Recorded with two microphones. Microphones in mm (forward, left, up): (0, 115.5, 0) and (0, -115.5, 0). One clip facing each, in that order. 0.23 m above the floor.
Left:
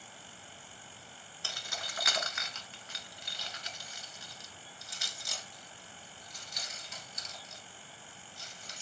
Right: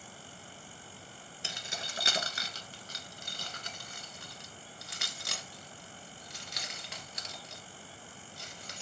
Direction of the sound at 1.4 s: 20° right (ahead or behind).